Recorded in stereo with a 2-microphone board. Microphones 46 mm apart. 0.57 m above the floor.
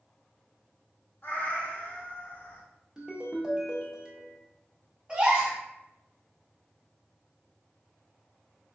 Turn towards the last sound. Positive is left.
turn(degrees=-25)  # may be behind; listen again after turning